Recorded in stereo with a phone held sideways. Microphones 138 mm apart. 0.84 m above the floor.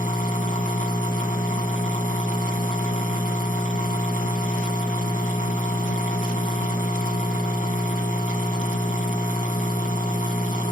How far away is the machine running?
About 3 m.